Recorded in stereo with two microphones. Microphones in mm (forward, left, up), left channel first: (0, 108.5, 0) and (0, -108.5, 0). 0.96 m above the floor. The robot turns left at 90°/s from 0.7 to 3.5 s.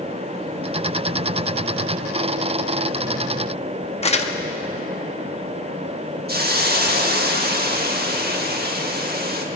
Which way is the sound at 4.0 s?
30° left (ahead or behind).